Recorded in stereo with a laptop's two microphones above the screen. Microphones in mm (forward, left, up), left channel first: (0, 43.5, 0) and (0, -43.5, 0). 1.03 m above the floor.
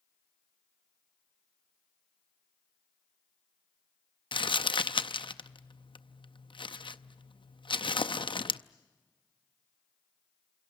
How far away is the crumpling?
About 0.6 m.